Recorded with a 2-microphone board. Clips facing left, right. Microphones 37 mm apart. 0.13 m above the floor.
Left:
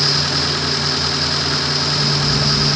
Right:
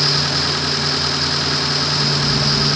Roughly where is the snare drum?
I don't hear a snare drum.